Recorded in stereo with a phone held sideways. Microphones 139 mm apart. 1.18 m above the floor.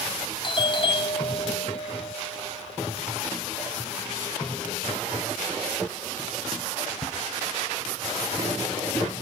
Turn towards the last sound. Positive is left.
turn(degrees=35)  # may be behind; listen again after turning